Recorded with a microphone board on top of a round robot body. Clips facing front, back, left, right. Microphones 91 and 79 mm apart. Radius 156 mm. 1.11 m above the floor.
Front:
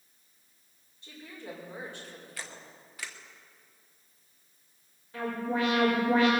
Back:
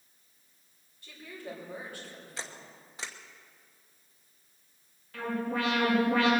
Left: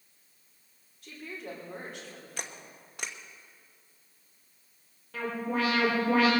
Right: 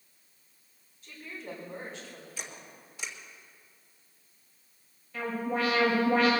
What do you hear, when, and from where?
1.0 s a woman speaking: 65° left, 4.5 m
2.4 s a camera shutter: 115° left, 1.1 m
5.1 s an alarm: 70° left, 5.5 m